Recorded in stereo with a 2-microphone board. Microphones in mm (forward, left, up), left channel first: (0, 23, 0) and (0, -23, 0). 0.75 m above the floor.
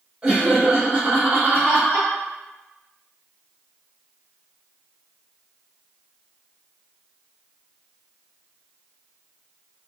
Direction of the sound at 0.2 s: 15° right (ahead or behind).